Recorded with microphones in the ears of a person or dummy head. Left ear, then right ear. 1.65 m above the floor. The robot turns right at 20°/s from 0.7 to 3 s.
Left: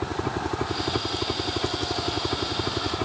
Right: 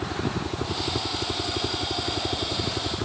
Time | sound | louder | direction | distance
0.0 | a helicopter | left 1 dB | 90° left | ?